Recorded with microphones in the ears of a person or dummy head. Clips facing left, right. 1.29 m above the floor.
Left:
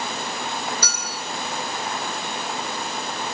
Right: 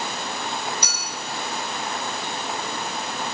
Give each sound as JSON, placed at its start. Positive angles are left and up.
{"t": 0.8, "sound": "a clink", "side_deg": -15, "distance_m": 1.3}